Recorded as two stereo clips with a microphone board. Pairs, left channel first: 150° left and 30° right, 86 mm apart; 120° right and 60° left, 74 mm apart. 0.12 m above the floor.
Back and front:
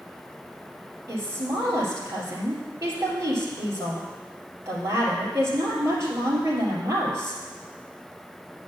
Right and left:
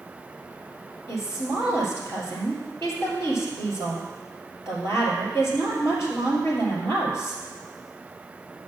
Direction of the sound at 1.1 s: 80° right.